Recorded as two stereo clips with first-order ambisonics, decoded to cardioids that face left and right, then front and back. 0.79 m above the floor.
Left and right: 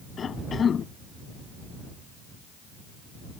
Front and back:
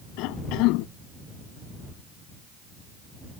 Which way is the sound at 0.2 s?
25° left.